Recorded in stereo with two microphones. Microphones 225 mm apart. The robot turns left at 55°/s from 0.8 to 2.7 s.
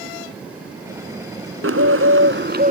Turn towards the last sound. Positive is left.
turn(degrees=-140)